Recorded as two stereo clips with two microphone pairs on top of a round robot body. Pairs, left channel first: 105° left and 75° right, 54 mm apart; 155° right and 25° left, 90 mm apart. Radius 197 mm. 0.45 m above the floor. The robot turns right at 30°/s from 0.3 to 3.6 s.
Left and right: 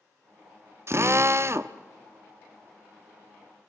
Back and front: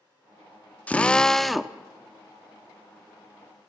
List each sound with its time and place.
0.9 s a drill: 85° right, 1.1 m; by 1.8 s 60° right, 1.1 m